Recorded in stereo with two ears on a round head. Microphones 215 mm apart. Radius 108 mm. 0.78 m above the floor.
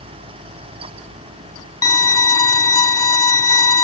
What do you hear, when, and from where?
1.8 s a violin: 15° left (ahead or behind)